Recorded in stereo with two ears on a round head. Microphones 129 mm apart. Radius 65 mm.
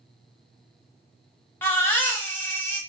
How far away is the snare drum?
No snare drum in this recording.